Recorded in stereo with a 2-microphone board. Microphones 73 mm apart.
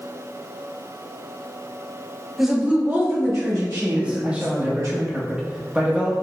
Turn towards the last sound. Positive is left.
turn(degrees=-20)  # may be behind; listen again after turning